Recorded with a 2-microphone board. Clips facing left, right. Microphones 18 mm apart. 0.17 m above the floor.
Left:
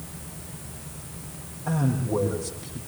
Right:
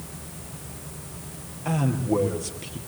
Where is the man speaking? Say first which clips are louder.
Right 2 dB; 70° right (ahead or behind), 4.5 m.